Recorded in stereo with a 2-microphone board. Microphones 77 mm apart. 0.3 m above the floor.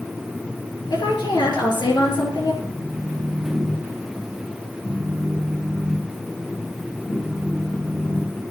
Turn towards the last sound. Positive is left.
turn(degrees=45)  # may be behind; listen again after turning